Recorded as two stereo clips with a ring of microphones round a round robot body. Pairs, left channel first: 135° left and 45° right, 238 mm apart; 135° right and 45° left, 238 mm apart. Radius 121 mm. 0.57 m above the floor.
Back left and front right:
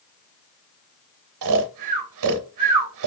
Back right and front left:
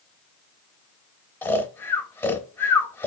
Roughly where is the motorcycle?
I don't hear a motorcycle.